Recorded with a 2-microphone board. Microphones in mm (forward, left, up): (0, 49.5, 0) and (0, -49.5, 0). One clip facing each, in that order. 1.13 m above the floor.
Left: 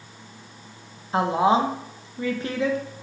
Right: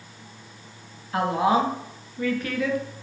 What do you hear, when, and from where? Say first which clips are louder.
1.1 s a woman speaking: left 2 dB; 25° left (ahead or behind), 0.7 m